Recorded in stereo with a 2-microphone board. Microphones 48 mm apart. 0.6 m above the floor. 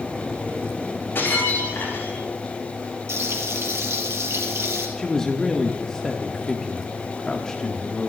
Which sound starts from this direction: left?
Breaking glass, at 1.1 s.